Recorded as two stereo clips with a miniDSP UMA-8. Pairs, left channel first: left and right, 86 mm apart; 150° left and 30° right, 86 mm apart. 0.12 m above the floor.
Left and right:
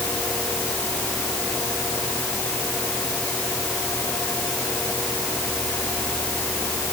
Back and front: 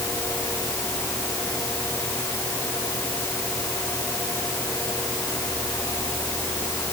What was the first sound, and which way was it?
Only background noise.